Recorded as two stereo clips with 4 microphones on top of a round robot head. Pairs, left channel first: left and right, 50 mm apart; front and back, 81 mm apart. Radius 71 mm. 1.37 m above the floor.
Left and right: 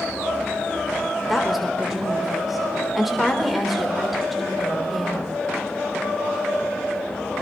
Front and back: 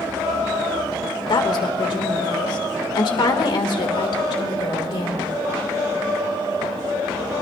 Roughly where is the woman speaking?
Ahead.